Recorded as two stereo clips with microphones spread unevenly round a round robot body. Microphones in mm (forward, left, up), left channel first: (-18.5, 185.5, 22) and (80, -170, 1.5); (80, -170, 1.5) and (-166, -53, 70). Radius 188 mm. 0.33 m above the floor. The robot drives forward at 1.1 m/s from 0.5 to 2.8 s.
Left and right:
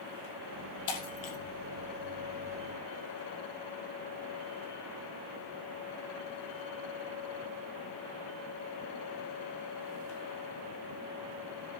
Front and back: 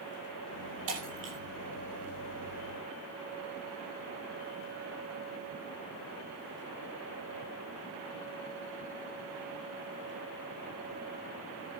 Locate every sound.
0.9 s breaking glass: 115° left, 5.5 m; by 1.4 s 120° left, 5.5 m